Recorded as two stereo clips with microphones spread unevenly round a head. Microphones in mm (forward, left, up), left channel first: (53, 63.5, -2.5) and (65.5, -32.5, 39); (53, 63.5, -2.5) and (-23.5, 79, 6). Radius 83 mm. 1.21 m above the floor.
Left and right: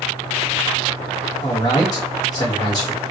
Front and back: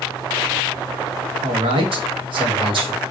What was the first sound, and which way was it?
A man speaking, 155° left.